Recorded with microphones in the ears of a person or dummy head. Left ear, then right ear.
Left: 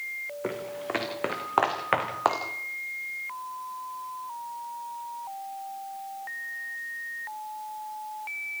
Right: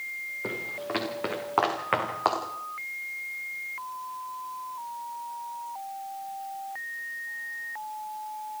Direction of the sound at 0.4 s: 25° left (ahead or behind).